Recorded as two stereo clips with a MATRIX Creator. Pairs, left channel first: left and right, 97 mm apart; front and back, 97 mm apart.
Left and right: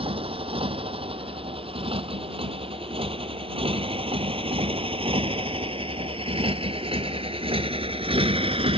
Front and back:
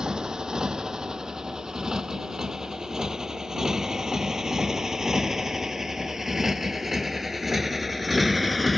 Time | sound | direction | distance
0.0 | a motorcycle | 95° right | ?